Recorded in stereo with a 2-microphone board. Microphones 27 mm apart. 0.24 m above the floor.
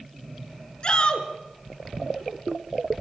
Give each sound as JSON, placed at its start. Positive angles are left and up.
{"t": 0.8, "sound": "a shout", "side_deg": 35, "distance_m": 3.0}